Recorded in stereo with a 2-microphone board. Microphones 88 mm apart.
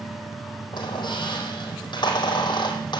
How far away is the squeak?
About 4.5 m.